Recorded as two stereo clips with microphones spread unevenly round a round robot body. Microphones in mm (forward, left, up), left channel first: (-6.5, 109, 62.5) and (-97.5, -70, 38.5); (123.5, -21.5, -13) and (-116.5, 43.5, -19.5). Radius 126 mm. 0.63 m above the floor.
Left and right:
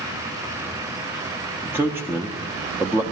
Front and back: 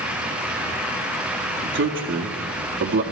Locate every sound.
1.6 s a man speaking: 175° left, 0.8 m